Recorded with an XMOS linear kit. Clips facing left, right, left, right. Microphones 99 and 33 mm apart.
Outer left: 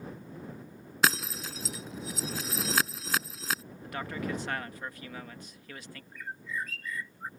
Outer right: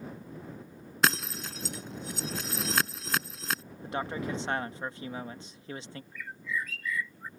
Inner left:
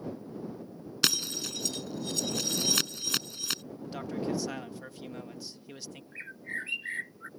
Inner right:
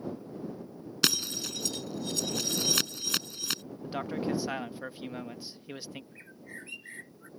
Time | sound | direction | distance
1.0 | breaking glass | centre (ahead or behind) | ?
3.8 | a man speaking | 25° right (ahead or behind) | ?
6.1 | a bird | 45° left (ahead or behind) | ?